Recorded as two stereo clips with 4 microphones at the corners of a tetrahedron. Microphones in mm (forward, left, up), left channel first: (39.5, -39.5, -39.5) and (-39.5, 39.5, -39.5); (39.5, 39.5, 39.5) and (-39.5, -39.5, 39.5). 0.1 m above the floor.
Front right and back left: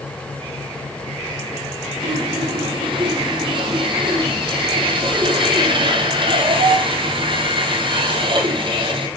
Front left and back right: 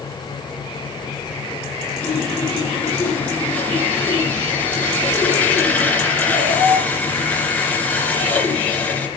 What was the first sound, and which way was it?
Sawing, 120° left.